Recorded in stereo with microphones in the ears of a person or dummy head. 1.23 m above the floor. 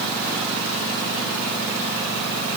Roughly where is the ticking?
No ticking in this recording.